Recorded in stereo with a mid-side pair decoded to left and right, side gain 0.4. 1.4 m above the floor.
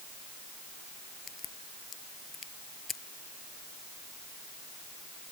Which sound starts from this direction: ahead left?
A crack, at 1.3 s.